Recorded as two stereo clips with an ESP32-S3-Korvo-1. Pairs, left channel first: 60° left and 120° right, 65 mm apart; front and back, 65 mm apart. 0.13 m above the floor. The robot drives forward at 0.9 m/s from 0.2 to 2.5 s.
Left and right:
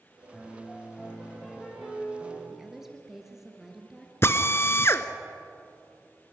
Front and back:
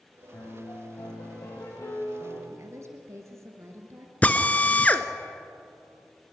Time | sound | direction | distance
0.3 | a piano | 30° right | 6.5 m
2.5 | a woman speaking | 155° left | 2.5 m
4.2 | a drill | 55° left | 1.0 m